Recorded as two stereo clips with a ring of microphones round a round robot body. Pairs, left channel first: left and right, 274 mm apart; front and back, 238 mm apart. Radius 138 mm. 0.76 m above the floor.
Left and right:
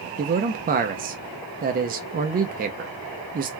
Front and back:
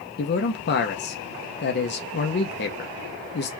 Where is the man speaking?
35° right, 0.6 m.